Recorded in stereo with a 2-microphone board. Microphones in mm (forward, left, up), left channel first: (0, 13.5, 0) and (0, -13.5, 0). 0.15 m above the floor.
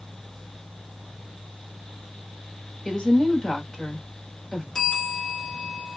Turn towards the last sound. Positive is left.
turn(degrees=15)  # may be behind; listen again after turning